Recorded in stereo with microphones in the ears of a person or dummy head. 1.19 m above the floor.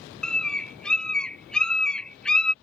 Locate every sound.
0.2 s a bird: 5° left (ahead or behind)